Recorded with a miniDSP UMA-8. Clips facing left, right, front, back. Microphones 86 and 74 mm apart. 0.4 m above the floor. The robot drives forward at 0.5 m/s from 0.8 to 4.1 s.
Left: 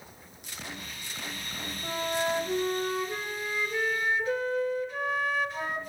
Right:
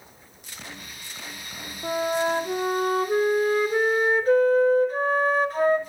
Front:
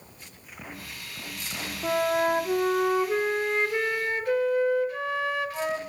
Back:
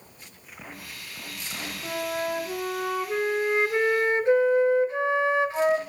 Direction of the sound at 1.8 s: 40° right.